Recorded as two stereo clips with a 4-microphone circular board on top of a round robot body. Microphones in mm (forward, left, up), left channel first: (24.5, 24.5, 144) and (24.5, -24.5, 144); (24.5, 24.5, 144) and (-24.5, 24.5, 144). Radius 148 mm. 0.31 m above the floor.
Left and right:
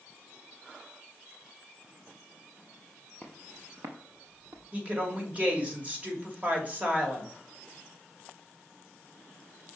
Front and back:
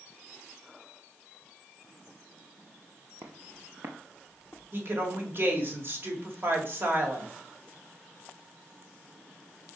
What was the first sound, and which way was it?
Footsteps, 175° left.